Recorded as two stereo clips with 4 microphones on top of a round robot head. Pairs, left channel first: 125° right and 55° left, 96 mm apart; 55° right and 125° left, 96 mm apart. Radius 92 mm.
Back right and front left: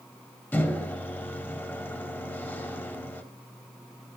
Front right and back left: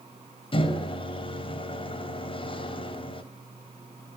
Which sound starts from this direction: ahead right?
A microwave, at 0.5 s.